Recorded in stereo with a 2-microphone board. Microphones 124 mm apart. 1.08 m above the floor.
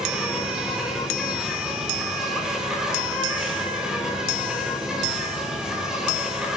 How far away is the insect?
About 4.5 m.